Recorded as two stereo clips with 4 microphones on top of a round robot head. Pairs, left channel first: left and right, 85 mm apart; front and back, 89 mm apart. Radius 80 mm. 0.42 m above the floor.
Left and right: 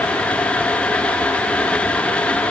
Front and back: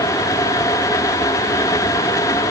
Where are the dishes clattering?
I don't hear dishes clattering.